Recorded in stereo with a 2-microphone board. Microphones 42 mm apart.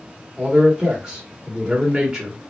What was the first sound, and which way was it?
A man speaking, 15° right (ahead or behind).